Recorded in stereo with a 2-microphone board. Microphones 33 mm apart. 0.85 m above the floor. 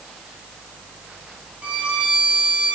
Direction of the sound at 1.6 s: 50° right (ahead or behind).